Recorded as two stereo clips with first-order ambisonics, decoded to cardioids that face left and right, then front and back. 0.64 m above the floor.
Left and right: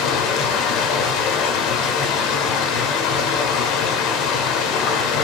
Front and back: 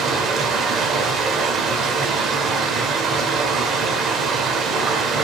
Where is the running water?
115° left, 1.7 m.